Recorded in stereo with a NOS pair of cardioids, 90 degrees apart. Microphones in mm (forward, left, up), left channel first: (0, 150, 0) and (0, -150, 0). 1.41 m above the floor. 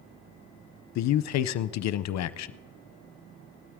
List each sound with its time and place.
0.9 s a man speaking: 65° left, 0.6 m